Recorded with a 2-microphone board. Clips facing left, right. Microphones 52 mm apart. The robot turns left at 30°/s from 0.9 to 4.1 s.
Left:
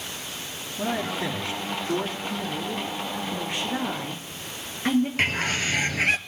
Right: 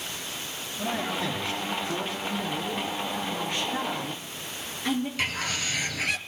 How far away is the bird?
About 0.7 m.